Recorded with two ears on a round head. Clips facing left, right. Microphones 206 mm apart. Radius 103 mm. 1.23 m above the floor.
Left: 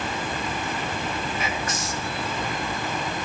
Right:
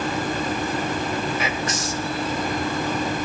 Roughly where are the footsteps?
No footsteps in this recording.